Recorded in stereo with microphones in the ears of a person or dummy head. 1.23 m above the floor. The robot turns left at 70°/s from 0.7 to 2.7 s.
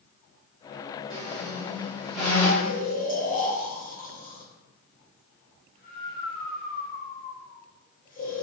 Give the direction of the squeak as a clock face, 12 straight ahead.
4 o'clock.